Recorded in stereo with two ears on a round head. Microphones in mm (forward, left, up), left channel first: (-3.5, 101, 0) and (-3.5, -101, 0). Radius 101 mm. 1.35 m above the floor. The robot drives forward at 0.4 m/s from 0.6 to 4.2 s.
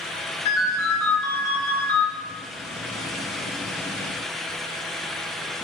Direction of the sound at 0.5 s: 75° left (ahead or behind).